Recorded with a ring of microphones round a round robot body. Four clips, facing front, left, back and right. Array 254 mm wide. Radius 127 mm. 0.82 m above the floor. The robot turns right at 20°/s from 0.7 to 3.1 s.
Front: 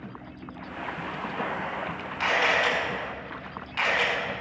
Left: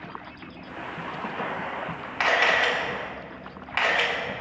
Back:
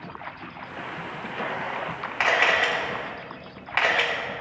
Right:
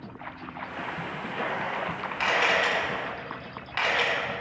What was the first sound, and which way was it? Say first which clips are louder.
A camera shutter: left 2 dB, back 2 dB; 145° left.